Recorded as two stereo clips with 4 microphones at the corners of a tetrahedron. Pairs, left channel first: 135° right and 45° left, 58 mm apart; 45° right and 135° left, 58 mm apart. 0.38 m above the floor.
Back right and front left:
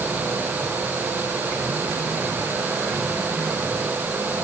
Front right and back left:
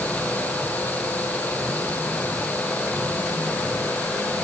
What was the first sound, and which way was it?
Only background noise.